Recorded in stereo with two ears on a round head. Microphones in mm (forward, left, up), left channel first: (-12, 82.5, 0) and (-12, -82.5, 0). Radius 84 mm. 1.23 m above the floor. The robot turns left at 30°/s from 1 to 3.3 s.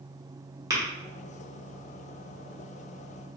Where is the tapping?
20° right (ahead or behind), 1.2 m.